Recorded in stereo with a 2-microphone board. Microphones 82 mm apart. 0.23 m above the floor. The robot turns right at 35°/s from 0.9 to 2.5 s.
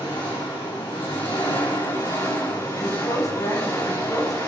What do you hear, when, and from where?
0.0 s an engine running: 80° left, 9.5 m; by 4.5 s 135° left, 9.5 m
2.8 s a woman speaking: 45° left (ahead or behind), 10 m